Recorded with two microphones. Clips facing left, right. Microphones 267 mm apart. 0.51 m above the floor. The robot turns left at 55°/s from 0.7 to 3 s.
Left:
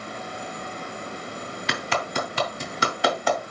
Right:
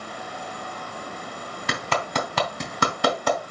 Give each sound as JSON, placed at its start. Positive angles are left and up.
{"t": 1.7, "sound": "a clap", "side_deg": -55, "distance_m": 1.9}